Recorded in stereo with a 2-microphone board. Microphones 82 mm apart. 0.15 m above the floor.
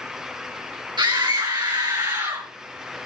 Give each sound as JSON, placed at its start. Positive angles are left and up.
{"t": 1.0, "sound": "a scream", "side_deg": -65, "distance_m": 3.0}